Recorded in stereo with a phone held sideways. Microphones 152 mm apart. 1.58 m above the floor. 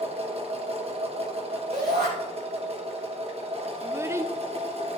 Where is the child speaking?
20° right (ahead or behind), 0.6 m.